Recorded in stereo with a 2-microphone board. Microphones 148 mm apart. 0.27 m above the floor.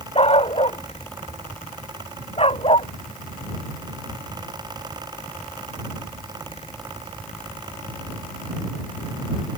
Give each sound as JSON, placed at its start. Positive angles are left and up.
{"t": 0.1, "sound": "a dog barking", "side_deg": 40}